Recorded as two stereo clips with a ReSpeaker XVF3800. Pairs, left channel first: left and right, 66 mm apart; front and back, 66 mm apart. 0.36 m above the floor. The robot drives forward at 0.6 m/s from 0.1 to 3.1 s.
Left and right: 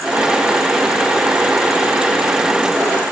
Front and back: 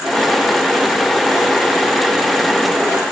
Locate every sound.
Only background noise.